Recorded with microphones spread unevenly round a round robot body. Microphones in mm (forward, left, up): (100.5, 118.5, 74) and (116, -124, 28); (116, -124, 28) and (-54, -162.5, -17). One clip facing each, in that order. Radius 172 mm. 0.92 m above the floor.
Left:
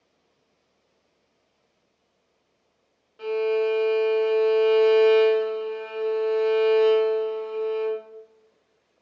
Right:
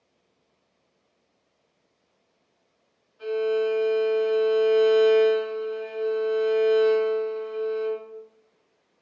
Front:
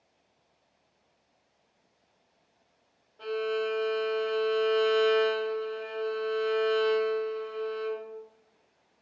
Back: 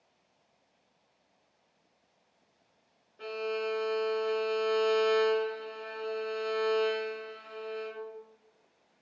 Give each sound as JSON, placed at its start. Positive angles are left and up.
{"t": 3.2, "sound": "a violin", "azimuth_deg": 115, "distance_m": 0.6}